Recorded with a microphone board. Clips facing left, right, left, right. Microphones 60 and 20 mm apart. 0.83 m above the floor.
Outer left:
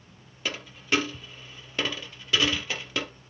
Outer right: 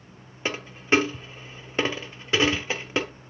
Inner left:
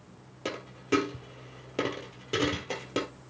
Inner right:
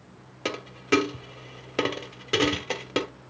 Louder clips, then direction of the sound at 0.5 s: Outer right 5 dB, inner right 5 dB; 30° right (ahead or behind).